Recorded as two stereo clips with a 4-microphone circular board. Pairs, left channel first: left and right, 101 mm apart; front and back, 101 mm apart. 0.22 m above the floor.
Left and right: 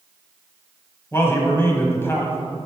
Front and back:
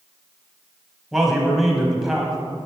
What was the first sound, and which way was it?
A man speaking, 95° left.